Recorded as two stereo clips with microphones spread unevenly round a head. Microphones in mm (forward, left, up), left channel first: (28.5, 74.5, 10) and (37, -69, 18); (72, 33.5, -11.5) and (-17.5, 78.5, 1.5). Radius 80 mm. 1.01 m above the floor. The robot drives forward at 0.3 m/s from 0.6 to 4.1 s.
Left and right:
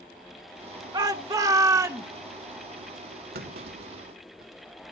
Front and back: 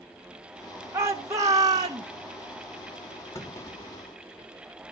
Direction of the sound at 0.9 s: 140° right.